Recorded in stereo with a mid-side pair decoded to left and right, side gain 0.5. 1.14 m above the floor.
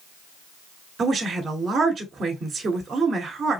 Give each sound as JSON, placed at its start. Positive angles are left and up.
{"t": 1.0, "sound": "a woman speaking", "azimuth_deg": -45, "distance_m": 3.0}